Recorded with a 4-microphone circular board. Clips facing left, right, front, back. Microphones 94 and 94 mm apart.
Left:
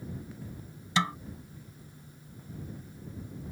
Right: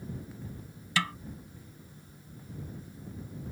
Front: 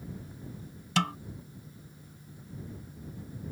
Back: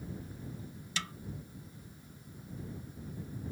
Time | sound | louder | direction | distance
1.0 | a snare drum | left 3 dB, front 13 dB | 25° left | ?